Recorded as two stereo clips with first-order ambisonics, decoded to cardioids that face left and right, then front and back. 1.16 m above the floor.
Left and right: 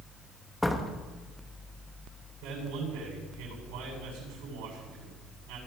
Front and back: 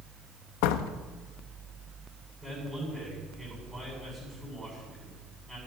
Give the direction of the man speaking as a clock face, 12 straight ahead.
3 o'clock.